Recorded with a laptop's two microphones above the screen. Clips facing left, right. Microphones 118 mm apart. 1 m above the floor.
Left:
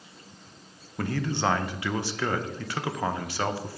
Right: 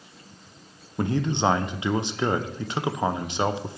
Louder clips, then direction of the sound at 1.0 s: Right 4 dB; 20° right (ahead or behind).